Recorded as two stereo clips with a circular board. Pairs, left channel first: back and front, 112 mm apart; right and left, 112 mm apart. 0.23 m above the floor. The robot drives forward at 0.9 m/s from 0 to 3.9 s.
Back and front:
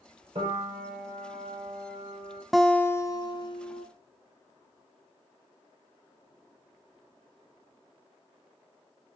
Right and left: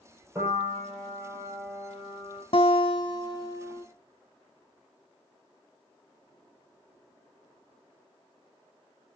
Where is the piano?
20° left, 5.5 m; by 2.4 s 30° left, 4 m.